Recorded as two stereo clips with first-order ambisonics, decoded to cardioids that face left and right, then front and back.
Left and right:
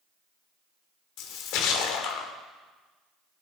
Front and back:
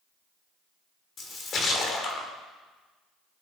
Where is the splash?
60° left, 1.9 m.